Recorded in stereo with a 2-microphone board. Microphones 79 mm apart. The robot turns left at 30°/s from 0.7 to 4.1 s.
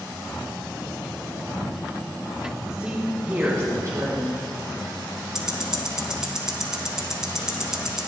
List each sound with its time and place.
2.7 s a woman speaking: 10° right, 5 m; by 4.4 s 50° right, 5 m
5.3 s ticking: 10° right (ahead or behind), 1.4 m